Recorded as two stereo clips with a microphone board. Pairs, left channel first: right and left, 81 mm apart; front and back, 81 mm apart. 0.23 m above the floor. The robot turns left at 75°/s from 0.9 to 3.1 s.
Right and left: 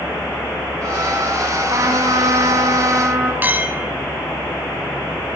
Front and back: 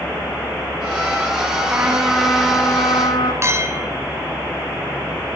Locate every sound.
1.7 s a trumpet: 135° left, 4 m; by 3.3 s 30° left, 4 m
3.4 s a clink: 145° left, 1.1 m